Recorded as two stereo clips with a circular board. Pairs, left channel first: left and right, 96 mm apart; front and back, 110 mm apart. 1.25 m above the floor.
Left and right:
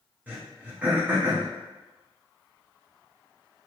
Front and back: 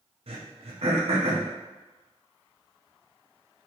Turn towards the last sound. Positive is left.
turn(degrees=-160)